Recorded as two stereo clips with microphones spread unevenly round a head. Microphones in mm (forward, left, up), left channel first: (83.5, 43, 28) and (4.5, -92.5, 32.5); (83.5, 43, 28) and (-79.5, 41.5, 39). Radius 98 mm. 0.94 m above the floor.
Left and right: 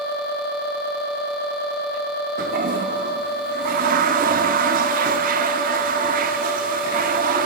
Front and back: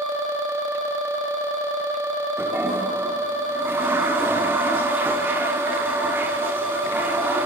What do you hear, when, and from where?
2.4 s a toilet flushing: 105° right, 0.7 m